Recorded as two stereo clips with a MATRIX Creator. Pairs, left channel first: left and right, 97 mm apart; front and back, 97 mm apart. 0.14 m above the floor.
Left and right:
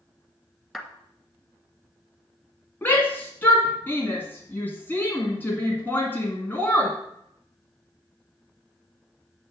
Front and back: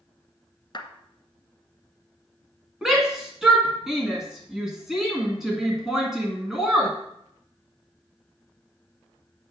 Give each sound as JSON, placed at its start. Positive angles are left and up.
{"t": 0.7, "sound": "a clap", "azimuth_deg": 5, "distance_m": 1.2}
{"t": 2.8, "sound": "a shout", "azimuth_deg": 105, "distance_m": 1.5}